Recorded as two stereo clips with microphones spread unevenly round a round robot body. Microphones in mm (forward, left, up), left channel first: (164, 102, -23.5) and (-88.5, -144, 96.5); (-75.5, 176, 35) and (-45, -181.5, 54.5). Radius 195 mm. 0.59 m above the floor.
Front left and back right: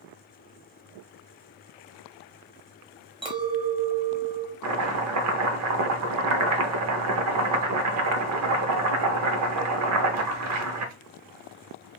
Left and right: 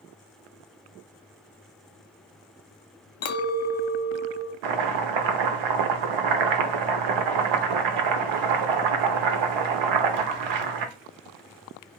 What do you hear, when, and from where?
3.2 s a clink: 135° left, 0.7 m
4.6 s chopping: 90° right, 0.7 m